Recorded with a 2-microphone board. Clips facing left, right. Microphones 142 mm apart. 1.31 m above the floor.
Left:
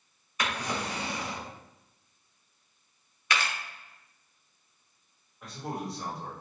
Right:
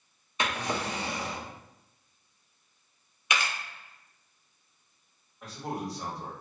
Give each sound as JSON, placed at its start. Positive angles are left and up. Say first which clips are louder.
{"t": 0.4, "sound": "a drawer", "louder": "right 1 dB", "side_deg": -25, "distance_m": 0.7}
{"t": 3.3, "sound": "a camera shutter", "louder": "even", "side_deg": -15, "distance_m": 0.7}
{"t": 5.4, "sound": "a man speaking", "louder": "right 1 dB", "side_deg": 0, "distance_m": 1.5}